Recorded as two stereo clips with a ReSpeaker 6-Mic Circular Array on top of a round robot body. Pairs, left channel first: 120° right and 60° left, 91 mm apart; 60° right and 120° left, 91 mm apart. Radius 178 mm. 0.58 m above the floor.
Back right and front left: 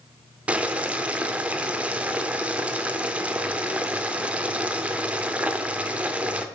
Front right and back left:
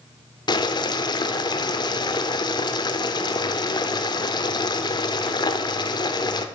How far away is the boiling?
About 0.9 m.